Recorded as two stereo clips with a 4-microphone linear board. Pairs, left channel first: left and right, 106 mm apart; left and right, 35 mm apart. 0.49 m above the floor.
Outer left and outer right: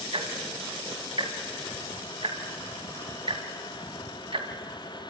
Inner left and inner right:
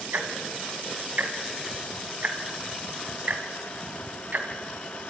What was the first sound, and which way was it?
Ticking, 60° right (ahead or behind).